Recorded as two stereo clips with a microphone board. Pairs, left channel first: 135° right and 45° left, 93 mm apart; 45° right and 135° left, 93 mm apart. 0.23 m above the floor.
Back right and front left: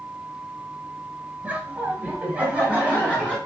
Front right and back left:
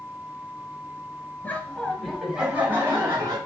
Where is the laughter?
5° right, 1.6 m; by 3.4 s 115° left, 1.9 m.